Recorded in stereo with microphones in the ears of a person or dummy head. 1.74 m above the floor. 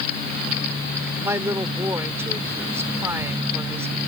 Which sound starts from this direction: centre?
A woman speaking, at 1.2 s.